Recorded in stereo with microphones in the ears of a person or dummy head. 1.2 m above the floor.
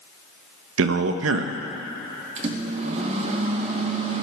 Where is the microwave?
40° right (ahead or behind), 1.1 m.